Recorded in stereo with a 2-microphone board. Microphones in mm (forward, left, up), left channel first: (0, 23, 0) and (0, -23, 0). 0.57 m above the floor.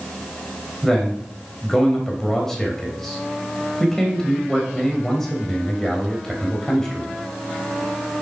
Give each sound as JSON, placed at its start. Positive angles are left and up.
{"t": 0.8, "sound": "a man speaking", "side_deg": 10, "distance_m": 3.0}